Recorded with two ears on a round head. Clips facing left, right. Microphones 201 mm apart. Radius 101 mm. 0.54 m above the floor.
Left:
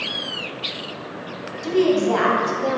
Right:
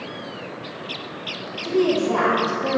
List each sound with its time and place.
1.6 s a woman speaking: 60° left (ahead or behind), 2.5 m